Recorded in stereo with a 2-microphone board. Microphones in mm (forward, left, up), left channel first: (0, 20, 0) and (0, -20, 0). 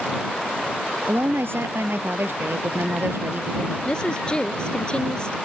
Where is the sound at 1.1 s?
80° right.